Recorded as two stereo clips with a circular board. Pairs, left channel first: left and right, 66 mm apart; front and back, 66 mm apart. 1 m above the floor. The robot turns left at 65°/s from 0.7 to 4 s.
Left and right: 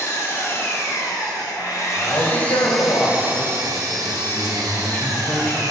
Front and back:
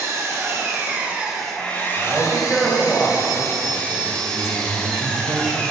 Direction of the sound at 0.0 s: 135° left.